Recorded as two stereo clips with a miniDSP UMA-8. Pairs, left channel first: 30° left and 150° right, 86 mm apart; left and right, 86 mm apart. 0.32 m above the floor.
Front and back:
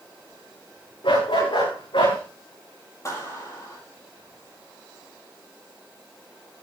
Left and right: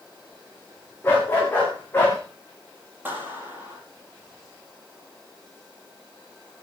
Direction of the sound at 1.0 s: 25° left.